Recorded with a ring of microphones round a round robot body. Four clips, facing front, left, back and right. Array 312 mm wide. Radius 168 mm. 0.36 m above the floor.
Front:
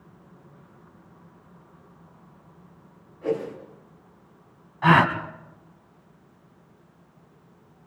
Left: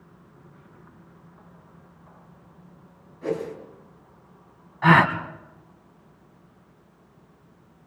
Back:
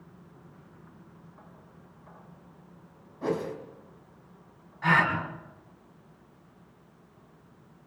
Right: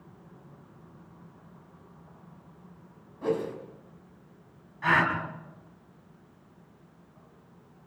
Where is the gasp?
50° left, 2.5 m.